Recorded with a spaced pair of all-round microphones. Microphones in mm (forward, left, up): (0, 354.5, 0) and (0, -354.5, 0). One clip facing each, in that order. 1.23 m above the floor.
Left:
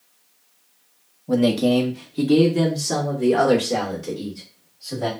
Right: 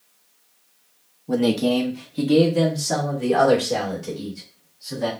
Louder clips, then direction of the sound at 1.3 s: Left 2 dB; 15° left (ahead or behind).